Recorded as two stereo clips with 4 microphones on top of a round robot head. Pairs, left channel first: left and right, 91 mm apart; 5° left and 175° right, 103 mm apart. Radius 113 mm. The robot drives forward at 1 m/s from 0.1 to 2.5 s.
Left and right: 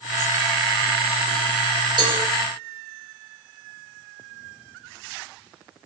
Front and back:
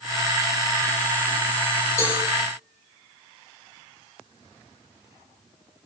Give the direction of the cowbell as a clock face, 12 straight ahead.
2 o'clock.